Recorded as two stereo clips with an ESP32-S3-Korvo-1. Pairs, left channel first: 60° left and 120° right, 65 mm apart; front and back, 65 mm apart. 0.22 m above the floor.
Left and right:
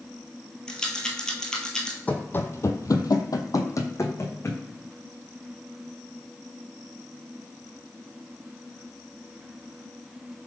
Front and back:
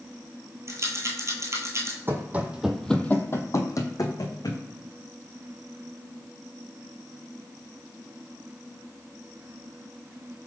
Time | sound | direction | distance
0.7 | a rattle | 140° left | 0.8 m
2.1 | running footsteps | 130° left | 0.7 m